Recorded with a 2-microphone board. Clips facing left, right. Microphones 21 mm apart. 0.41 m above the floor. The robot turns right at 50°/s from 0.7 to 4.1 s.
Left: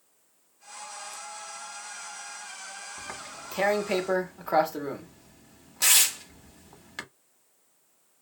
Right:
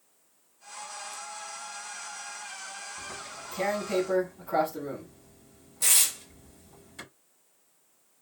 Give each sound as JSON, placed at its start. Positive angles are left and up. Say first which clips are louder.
{"t": 3.0, "sound": "tearing paper", "louder": "even", "side_deg": 60, "distance_m": 0.9}